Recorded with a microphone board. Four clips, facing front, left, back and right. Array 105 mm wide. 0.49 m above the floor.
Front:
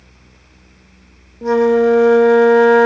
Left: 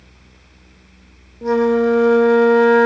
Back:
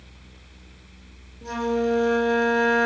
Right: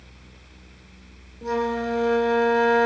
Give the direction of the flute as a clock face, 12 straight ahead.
11 o'clock.